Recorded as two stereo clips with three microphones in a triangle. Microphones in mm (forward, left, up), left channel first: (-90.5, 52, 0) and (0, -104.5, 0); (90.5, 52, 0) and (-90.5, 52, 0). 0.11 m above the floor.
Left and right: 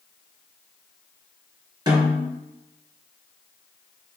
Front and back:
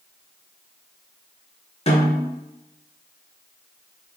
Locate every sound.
1.9 s a snare drum: 10° right, 1.7 m